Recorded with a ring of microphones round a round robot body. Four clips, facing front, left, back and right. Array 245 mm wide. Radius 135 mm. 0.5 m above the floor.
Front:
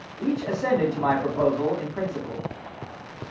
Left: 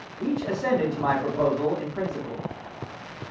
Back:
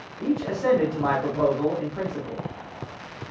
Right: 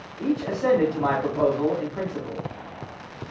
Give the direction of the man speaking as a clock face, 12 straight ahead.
1 o'clock.